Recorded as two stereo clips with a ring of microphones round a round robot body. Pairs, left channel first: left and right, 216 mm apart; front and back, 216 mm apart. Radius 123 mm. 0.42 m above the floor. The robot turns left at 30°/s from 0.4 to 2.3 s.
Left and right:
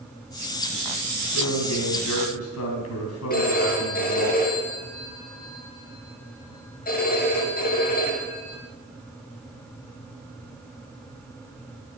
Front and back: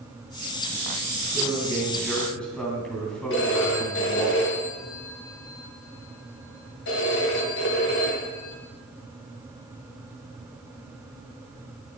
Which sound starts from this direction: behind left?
A man speaking, at 1.3 s.